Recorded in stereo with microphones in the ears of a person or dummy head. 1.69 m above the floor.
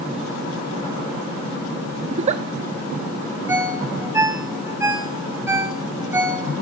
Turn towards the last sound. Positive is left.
turn(degrees=-20)  # may be behind; listen again after turning